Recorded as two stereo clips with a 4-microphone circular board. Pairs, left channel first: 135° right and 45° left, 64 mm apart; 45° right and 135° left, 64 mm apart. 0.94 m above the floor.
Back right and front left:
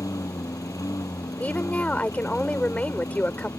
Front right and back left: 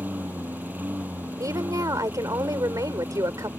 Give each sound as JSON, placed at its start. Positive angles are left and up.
{"t": 0.0, "sound": "a lawn mower", "azimuth_deg": -165}
{"t": 1.4, "sound": "a woman speaking", "azimuth_deg": 160}